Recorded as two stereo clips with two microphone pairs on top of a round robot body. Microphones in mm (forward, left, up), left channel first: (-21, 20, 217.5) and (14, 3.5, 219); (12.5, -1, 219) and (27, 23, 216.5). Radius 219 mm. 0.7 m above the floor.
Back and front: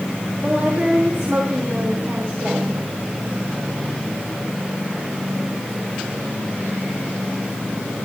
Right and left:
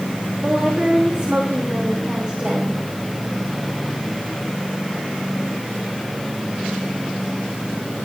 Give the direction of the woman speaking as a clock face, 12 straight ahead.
12 o'clock.